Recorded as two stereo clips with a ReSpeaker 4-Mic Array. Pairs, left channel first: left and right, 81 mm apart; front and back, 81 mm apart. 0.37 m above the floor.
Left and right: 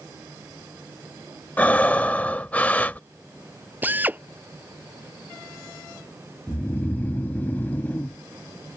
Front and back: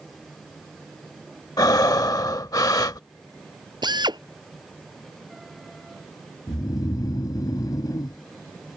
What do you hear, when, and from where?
1.6 s breathing: 20° left
3.8 s a drill: 160° right
6.5 s snoring: 25° left